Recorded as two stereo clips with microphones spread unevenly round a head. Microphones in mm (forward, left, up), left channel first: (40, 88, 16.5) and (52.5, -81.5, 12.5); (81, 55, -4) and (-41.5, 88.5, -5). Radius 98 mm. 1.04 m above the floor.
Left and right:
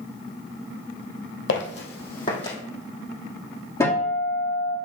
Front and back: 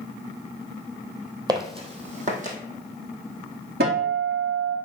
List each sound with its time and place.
1.5 s footsteps: 110° left, 2 m; by 2.6 s 160° left, 2.5 m
3.8 s a guitar: 170° left, 2 m